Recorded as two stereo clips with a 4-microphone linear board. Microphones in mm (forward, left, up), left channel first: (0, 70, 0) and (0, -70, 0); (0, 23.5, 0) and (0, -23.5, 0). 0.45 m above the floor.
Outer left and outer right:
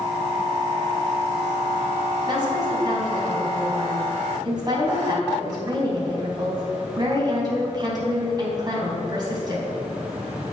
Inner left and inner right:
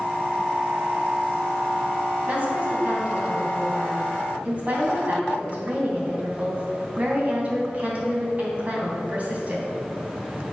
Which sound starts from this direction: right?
A woman speaking, at 2.3 s.